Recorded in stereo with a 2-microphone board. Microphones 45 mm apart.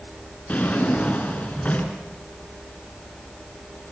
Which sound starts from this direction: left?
A drawer, at 0.5 s.